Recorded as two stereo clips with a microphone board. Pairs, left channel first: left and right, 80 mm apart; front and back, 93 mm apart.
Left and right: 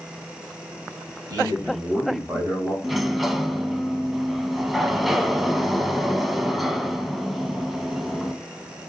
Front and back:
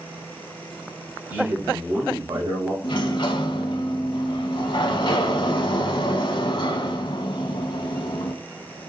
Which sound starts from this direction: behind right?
A man speaking, at 1.3 s.